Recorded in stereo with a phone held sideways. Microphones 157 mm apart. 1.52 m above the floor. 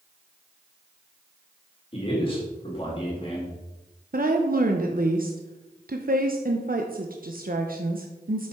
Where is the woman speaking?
65° right (ahead or behind), 0.9 m.